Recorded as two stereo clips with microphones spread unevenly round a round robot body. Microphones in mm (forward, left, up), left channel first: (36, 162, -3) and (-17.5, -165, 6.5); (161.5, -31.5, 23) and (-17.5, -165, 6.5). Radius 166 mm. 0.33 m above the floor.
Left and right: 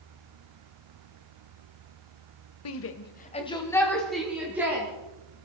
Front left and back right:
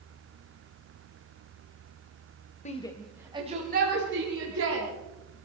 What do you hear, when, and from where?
2.6 s a shout: 90° left, 1.3 m; by 4.9 s 175° left, 3.5 m